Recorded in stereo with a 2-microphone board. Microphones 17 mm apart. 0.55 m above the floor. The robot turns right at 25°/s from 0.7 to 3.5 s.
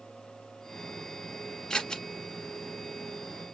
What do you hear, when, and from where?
1.7 s scissors: 40° left (ahead or behind), 1.1 m; by 2.0 s 45° left (ahead or behind), 1.1 m